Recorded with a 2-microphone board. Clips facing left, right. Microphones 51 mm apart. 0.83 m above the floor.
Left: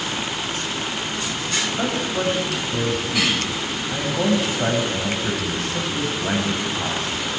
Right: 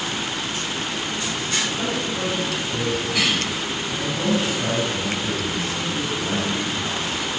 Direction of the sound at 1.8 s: 45° left (ahead or behind).